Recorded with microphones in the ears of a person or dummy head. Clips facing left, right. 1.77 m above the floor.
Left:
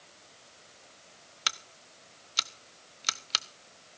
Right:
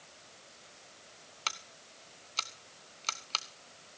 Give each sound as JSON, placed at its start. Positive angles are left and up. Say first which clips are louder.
{"t": 1.5, "sound": "scissors", "louder": "left 2 dB", "side_deg": 15, "distance_m": 0.6}